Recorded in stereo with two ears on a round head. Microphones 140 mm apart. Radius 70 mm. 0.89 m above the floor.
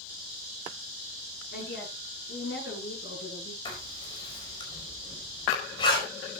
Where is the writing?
30° left (ahead or behind), 5 m.